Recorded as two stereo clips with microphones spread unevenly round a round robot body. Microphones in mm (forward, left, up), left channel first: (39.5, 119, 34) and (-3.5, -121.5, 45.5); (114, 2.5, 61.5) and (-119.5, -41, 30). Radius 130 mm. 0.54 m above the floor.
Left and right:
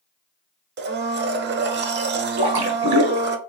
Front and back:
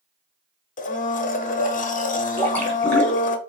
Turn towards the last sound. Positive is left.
turn(degrees=-75)